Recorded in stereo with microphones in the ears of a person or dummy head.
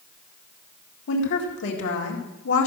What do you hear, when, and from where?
1.1 s a woman speaking: 60° left (ahead or behind), 1.9 m